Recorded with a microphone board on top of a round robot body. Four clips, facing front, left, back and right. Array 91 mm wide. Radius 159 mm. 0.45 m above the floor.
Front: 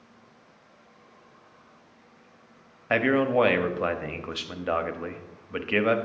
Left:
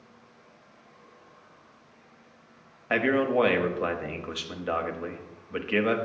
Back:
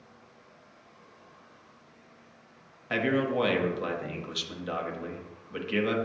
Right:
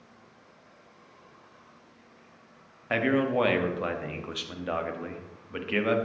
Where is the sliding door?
I don't hear a sliding door.